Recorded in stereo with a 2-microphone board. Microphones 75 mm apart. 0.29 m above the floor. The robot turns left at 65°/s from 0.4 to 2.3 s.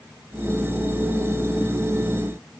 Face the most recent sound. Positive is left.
No sound to turn to.